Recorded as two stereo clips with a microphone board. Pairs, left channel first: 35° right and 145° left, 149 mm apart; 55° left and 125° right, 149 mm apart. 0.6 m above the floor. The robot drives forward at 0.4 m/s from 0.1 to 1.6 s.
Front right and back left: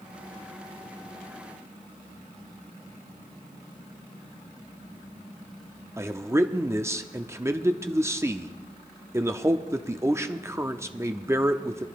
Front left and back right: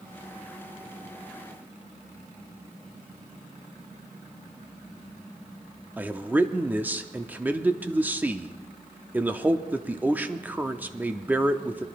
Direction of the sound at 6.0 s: Straight behind.